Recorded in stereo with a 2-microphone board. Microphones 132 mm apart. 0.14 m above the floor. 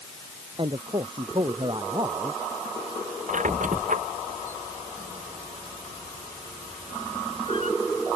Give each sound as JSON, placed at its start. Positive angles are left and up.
{"t": 0.6, "sound": "a man speaking", "side_deg": -40}
{"t": 3.3, "sound": "a squeak", "side_deg": -70}